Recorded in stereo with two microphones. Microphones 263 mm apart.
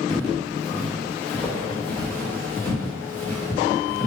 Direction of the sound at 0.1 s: 5° left (ahead or behind).